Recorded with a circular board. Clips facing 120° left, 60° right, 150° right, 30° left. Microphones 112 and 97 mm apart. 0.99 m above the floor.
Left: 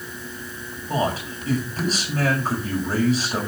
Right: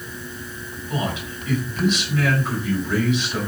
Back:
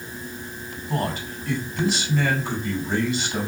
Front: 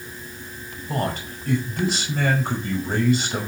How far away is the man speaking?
About 5 m.